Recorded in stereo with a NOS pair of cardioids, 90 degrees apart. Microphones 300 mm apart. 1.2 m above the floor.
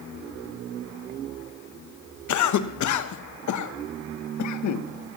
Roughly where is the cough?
Ahead left.